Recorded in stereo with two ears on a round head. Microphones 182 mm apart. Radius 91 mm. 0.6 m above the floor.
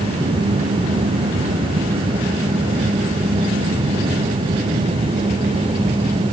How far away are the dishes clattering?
No dishes clattering in this recording.